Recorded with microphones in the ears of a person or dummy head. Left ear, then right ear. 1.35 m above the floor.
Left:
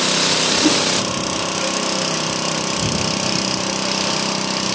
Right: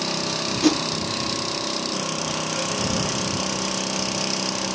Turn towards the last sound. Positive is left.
turn(degrees=-45)  # may be behind; listen again after turning